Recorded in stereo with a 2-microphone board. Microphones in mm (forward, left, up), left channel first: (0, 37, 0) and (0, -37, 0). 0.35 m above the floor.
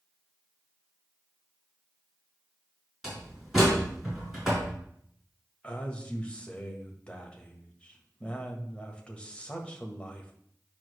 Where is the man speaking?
15° left (ahead or behind), 1.3 m.